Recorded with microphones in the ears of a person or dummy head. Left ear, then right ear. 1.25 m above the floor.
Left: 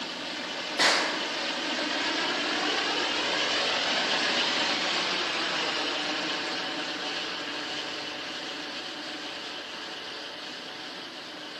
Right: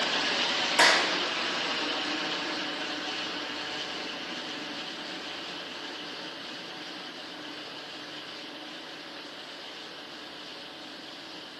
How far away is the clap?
About 2.5 m.